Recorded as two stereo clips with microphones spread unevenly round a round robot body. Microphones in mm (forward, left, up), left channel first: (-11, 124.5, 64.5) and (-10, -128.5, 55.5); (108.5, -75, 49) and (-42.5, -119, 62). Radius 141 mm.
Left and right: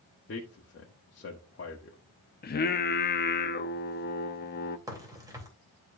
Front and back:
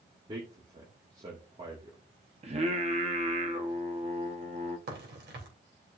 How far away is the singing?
About 0.7 m.